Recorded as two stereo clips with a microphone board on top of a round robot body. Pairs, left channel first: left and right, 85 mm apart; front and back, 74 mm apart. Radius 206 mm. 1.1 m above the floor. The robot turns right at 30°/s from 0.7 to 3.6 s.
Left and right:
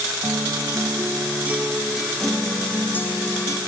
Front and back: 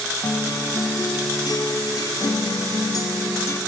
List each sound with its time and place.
0.2 s a guitar: 40° right, 0.9 m; by 3.6 s 45° left, 0.9 m